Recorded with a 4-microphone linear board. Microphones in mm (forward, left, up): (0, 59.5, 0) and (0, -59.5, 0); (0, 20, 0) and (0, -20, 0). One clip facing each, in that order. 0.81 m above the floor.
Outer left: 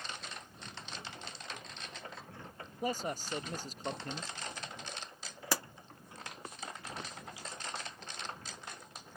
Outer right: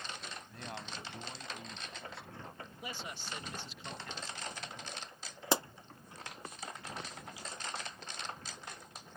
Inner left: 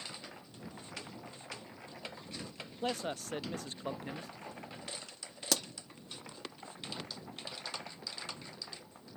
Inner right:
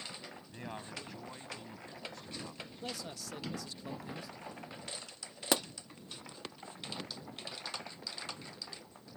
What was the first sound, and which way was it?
A man speaking, 75° right (ahead or behind).